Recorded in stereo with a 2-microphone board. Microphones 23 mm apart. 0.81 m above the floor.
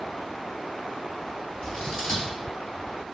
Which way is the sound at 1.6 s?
40° left (ahead or behind).